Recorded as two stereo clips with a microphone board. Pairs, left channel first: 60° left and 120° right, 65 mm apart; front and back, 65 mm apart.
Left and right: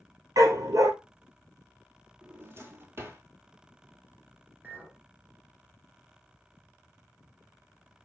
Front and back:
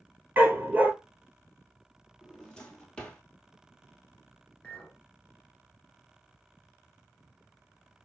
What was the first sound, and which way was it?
A dog barking, 120° right.